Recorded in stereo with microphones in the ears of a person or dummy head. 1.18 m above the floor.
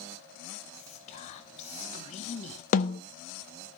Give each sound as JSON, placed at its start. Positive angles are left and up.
{"t": 0.7, "sound": "whispering", "side_deg": 35, "distance_m": 1.0}
{"t": 2.7, "sound": "a snare drum", "side_deg": 45, "distance_m": 0.8}